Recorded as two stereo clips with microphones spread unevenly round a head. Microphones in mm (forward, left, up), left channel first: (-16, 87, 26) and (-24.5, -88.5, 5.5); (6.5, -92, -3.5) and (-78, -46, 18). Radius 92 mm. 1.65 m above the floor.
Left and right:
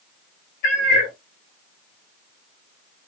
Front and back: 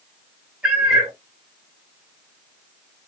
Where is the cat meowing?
80° left, 1.2 m.